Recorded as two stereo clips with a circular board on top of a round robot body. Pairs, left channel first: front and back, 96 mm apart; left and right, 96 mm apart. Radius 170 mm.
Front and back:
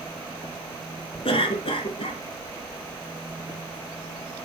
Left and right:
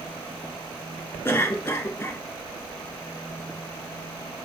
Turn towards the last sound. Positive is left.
turn(degrees=20)